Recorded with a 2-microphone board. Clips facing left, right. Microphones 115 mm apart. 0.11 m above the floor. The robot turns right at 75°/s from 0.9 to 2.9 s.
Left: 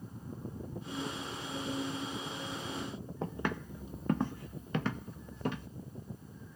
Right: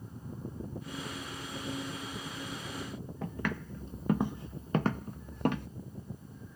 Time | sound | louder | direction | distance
3.2 | footsteps | left 1 dB | 30° left (ahead or behind) | 0.8 m